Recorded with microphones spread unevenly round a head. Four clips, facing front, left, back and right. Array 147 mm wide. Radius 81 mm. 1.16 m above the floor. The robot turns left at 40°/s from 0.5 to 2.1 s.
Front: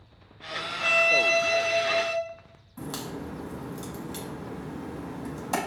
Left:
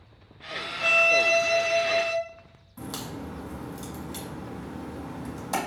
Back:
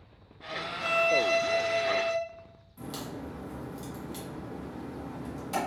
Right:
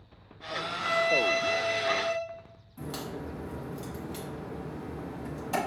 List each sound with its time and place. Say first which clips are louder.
0.8 s a violin: left 3 dB, front 1 dB; 65° left, 1.8 m; by 2.1 s 15° left, 1.8 m
2.8 s a crack: left 1 dB, front 3 dB; 30° left, 1.7 m